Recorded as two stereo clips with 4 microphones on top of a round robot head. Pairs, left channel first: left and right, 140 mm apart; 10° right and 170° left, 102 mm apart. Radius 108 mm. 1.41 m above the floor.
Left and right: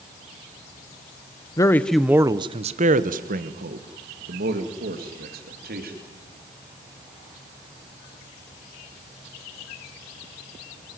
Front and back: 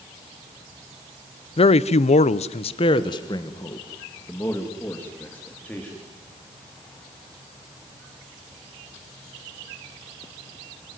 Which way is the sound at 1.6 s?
20° left.